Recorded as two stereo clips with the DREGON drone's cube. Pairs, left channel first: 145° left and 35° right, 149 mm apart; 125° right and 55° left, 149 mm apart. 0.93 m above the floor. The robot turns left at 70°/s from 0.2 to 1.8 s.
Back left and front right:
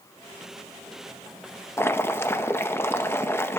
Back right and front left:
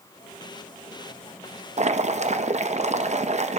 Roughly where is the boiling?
Left.